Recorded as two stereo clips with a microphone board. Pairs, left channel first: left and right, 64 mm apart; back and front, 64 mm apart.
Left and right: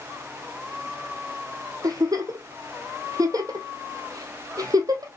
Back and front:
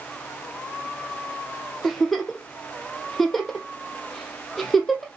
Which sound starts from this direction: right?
A giggle, at 1.8 s.